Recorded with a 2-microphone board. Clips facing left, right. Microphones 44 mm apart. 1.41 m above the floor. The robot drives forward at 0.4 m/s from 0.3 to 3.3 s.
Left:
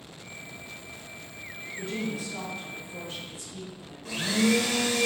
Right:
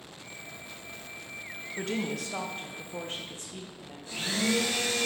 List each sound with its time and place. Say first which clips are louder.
1.8 s a woman speaking: right 1 dB; 70° right (ahead or behind), 0.9 m; by 4.6 s 40° right (ahead or behind), 1.3 m
4.0 s a blender: left 5 dB; 65° left (ahead or behind), 1.2 m